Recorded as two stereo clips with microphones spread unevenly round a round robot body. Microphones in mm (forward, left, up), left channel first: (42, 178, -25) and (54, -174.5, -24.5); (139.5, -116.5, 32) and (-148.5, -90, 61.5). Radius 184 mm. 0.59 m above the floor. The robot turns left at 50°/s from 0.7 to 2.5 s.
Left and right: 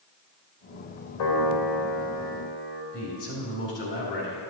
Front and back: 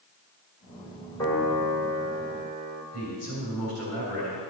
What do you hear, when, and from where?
1.2 s a piano: 75° left, 2.5 m; by 2.8 s 5° left, 2.5 m
2.9 s a man speaking: 35° left, 3.5 m